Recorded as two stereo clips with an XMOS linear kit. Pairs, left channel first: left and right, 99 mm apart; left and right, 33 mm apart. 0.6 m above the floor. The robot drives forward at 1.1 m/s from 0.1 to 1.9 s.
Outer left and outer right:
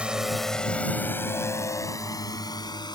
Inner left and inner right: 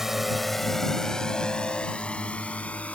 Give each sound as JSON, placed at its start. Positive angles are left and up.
{"t": 0.0, "sound": "a drone", "side_deg": -10}